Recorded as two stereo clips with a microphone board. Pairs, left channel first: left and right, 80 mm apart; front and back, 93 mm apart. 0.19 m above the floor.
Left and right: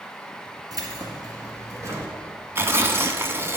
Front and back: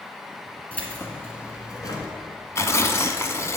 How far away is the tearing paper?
About 0.8 m.